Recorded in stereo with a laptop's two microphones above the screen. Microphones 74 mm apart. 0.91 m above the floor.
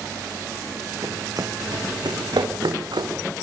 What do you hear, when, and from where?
1.0 s running footsteps: 50° right (ahead or behind), 2.5 m; by 3.1 s 75° right (ahead or behind), 4 m